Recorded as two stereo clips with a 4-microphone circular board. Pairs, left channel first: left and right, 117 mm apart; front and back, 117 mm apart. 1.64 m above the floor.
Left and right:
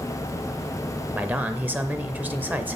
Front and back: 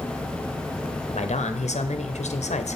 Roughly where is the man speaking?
Ahead.